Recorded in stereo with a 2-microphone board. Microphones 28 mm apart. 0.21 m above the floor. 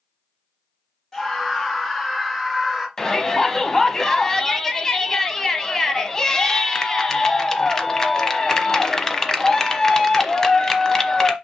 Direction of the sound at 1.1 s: 20° left (ahead or behind).